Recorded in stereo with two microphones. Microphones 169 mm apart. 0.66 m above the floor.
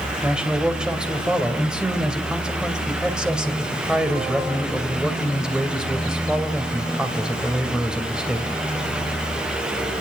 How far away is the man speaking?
About 2.5 m.